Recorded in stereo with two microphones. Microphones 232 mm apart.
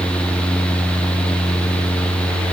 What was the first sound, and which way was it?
Only background noise.